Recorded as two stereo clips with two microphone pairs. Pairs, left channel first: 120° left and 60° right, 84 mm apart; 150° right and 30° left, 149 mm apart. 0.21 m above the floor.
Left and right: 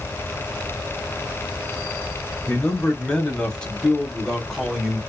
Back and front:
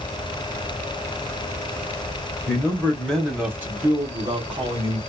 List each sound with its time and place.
2.5 s a man speaking: 165° left, 1.2 m; by 5.0 s 25° left, 1.5 m